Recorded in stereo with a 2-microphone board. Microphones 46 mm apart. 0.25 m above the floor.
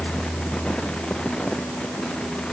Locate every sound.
Only background noise.